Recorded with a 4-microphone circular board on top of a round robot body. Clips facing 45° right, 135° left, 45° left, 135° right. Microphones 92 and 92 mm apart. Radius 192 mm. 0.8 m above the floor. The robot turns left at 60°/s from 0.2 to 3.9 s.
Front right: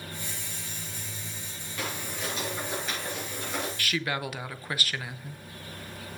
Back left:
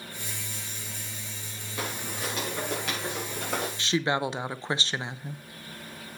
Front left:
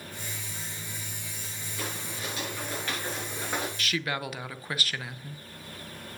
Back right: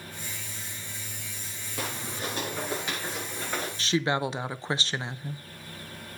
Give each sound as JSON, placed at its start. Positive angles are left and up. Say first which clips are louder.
{"t": 1.8, "sound": "footsteps", "louder": "back left 1 dB, back right 3 dB", "azimuth_deg": -155, "distance_m": 7.0}
{"t": 3.8, "sound": "a woman speaking", "louder": "back left 7 dB, back right 5 dB", "azimuth_deg": -170, "distance_m": 1.0}